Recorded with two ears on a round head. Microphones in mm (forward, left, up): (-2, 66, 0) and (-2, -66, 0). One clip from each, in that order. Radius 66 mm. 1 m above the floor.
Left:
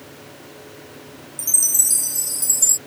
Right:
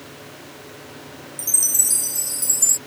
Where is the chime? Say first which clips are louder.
Left 1 dB; 5° left (ahead or behind).